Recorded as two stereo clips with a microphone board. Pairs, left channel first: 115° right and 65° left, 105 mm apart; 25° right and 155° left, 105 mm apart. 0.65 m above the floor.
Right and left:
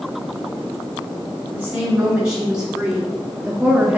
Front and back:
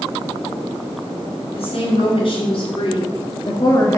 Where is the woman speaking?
15° right, 3.5 m; by 4.0 s 10° left, 1.1 m.